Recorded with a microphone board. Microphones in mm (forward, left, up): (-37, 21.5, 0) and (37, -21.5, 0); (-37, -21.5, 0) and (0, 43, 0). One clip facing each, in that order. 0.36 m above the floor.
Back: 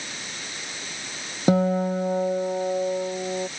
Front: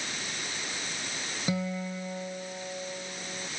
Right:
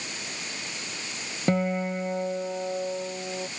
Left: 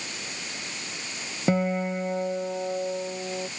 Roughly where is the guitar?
Behind left.